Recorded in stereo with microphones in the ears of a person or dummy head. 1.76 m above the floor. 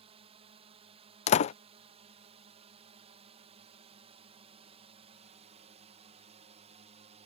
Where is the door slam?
30° left (ahead or behind).